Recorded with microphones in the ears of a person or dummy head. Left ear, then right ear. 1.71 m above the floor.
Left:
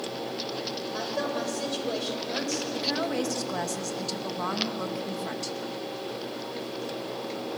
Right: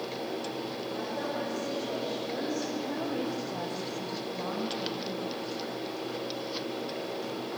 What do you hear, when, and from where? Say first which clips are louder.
0.9 s a woman speaking: left 4 dB; 65° left (ahead or behind), 8 m
2.7 s a woman speaking: left 5 dB; 70° left (ahead or behind), 2 m